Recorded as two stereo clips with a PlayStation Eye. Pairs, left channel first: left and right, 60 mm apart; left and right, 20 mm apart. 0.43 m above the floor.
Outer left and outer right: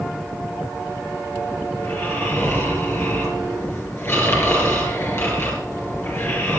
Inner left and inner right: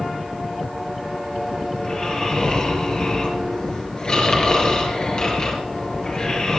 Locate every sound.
1.8 s snoring: 40° left (ahead or behind), 4.5 m